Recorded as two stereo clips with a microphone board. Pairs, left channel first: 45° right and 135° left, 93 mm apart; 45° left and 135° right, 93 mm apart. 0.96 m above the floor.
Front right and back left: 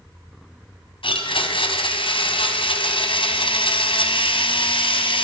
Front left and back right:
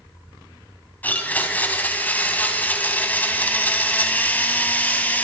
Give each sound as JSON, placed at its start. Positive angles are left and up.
{"t": 1.0, "sound": "a blender", "azimuth_deg": -25, "distance_m": 3.0}